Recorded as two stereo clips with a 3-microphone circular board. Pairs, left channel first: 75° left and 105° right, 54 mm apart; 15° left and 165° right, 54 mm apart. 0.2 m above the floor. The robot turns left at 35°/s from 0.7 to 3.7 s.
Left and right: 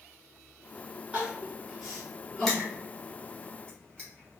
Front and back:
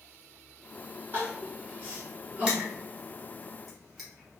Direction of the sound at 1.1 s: 160° right.